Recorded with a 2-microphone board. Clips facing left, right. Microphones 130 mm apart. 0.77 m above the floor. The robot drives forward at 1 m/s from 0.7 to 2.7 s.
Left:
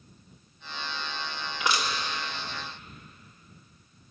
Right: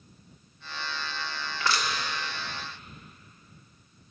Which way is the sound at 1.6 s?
15° left (ahead or behind).